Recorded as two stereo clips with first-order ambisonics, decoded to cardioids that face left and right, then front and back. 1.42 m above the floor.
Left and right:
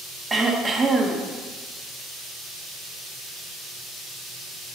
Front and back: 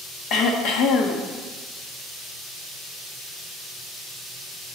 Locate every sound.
0.3 s throat clearing: 20° right, 1.0 m